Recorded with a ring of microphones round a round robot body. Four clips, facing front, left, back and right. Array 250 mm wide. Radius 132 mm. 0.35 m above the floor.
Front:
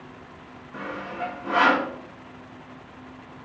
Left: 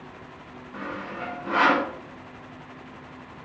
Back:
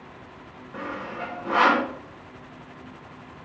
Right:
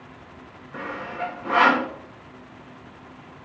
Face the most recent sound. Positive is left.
turn(degrees=-105)